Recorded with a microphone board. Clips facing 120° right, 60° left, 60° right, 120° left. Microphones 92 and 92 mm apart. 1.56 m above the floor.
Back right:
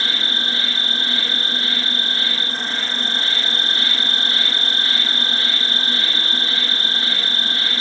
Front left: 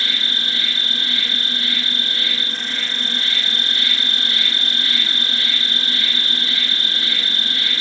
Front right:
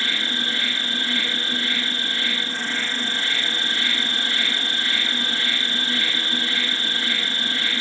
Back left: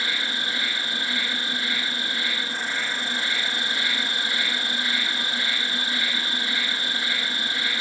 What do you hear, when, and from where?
0.0 s an insect: 165° right, 1.2 m